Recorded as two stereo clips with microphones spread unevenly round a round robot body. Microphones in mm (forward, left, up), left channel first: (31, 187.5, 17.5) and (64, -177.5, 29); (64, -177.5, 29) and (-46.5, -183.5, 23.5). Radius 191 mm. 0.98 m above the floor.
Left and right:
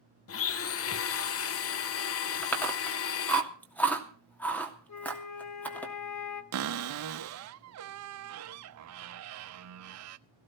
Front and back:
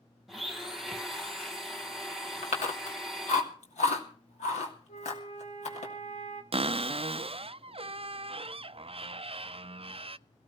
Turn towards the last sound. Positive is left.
turn(degrees=-135)